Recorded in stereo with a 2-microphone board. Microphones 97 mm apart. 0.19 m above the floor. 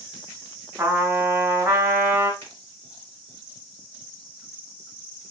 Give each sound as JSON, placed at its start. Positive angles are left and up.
{"t": 0.8, "sound": "a trumpet", "side_deg": -25, "distance_m": 0.7}
{"t": 2.4, "sound": "a finger snap", "side_deg": 25, "distance_m": 1.9}